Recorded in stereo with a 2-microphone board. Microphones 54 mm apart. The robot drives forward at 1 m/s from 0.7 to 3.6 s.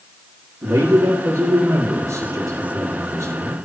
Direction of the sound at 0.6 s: 80° right.